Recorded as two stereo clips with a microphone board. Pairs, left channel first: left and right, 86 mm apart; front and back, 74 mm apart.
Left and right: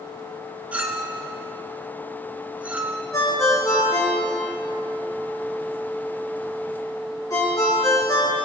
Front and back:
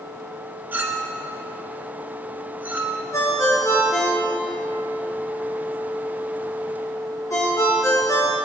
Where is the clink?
145° right, 1.0 m.